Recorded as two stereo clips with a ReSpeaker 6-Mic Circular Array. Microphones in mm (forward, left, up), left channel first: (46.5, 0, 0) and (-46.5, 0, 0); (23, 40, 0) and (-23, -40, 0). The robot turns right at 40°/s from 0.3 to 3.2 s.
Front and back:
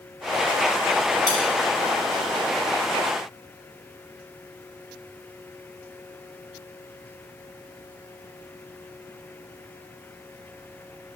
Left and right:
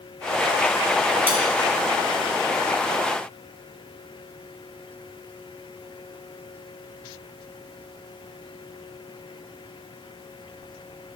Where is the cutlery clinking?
50° right, 3 m; by 1.4 s 45° right, 3 m.